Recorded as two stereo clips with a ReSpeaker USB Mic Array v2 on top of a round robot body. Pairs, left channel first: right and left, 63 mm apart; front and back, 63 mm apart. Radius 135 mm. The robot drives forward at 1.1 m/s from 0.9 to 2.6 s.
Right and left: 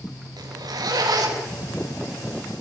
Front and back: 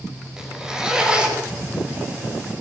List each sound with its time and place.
0.4 s a zipper: 100° left, 5 m; by 1.6 s 110° left, 5 m